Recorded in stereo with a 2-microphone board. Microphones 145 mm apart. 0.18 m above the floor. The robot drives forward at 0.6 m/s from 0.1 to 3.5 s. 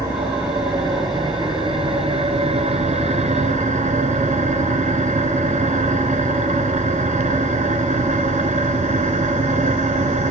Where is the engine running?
25° right (ahead or behind), 2.5 m; by 10.3 s 60° right (ahead or behind), 1.1 m.